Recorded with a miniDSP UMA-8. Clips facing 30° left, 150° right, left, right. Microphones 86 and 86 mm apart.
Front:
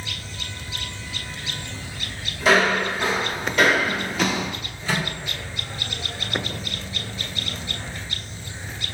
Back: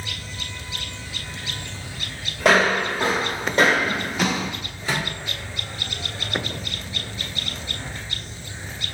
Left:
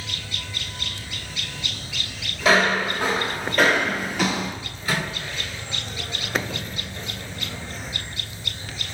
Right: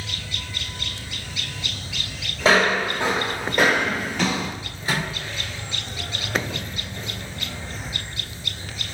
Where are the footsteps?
140° right, 1.7 m; by 4.5 s 85° left, 0.9 m.